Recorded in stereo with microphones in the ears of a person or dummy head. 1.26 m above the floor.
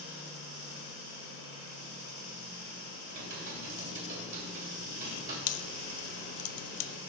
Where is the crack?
45° left (ahead or behind), 0.8 m.